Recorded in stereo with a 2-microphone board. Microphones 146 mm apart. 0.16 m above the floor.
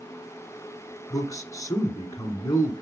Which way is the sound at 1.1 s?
25° left (ahead or behind).